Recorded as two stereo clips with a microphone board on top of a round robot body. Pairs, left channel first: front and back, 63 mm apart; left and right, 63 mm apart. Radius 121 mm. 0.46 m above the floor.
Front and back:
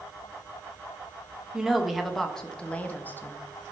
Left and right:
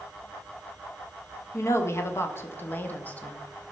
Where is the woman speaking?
100° left, 1.6 m; by 3.4 s 30° left, 1.4 m.